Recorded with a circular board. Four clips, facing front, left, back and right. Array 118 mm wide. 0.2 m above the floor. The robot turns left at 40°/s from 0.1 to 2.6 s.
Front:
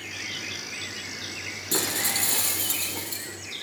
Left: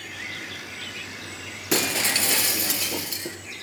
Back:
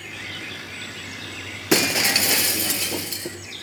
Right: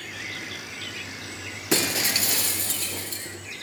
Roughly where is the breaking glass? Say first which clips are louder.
Left 1 dB, back 9 dB; behind.